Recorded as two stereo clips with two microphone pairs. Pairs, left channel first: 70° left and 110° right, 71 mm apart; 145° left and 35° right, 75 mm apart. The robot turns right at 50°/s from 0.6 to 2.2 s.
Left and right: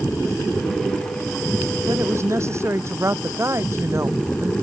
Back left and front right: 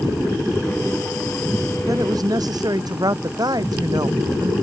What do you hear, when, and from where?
1.9 s a woman speaking: 80° right; by 4.5 s 65° right